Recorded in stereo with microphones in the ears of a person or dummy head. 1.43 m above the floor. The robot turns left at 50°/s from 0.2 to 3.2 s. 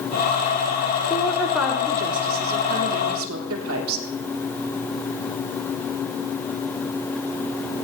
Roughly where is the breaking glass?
I don't hear breaking glass.